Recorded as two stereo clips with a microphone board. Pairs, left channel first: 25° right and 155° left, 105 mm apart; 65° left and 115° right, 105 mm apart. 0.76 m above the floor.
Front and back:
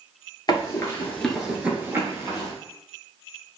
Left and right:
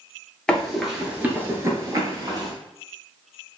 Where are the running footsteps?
10° right, 0.9 m; by 2.5 s 160° right, 1.2 m.